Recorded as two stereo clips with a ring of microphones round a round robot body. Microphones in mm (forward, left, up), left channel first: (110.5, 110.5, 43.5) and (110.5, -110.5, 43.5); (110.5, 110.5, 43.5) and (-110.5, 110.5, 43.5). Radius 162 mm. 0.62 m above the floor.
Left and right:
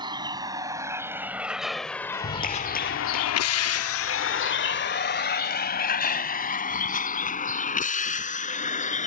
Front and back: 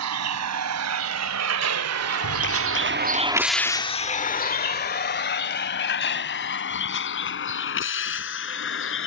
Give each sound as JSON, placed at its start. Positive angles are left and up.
{"t": 0.0, "sound": "a vehicle", "azimuth_deg": -165}
{"t": 2.1, "sound": "a clap", "azimuth_deg": 40}